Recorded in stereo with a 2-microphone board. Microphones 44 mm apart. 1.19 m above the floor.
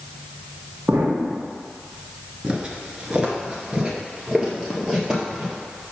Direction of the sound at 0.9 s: 65° right (ahead or behind).